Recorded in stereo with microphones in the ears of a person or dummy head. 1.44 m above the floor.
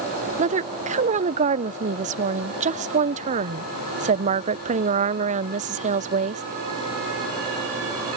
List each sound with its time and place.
0.4 s a woman speaking: 40° right (ahead or behind)